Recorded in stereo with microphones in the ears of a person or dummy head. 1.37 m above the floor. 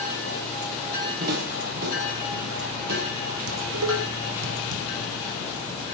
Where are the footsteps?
55° right (ahead or behind), 6.5 m; by 3.1 s 65° right (ahead or behind), 6.5 m.